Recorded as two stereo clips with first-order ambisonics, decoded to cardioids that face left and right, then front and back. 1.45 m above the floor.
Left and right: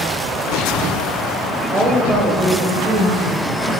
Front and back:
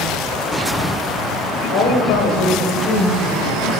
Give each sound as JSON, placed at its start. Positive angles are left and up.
{"t": 1.7, "sound": "a woman speaking", "azimuth_deg": -10, "distance_m": 5.5}